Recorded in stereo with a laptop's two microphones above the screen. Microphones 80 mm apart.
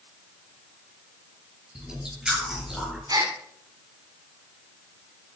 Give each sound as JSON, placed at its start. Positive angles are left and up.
{"t": 1.8, "sound": "chewing", "side_deg": -10, "distance_m": 6.0}
{"t": 3.1, "sound": "a gasp", "side_deg": -50, "distance_m": 2.5}